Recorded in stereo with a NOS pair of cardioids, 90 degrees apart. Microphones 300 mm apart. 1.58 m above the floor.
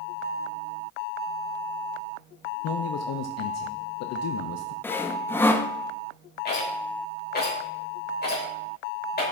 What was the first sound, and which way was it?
A man speaking, 60° left.